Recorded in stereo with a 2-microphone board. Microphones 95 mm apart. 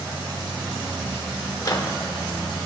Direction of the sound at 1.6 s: 40° left (ahead or behind).